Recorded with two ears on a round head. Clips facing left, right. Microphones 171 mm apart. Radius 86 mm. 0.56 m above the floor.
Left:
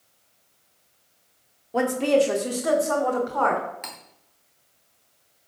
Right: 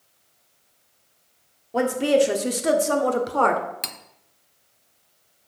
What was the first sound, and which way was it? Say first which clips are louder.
A woman speaking: right 1 dB; centre (ahead or behind).